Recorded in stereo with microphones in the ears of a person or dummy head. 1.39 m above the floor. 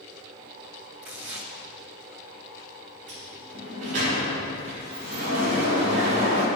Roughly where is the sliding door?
Right.